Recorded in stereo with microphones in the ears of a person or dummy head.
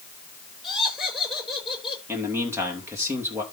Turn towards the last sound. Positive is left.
turn(degrees=-10)  # may be behind; listen again after turning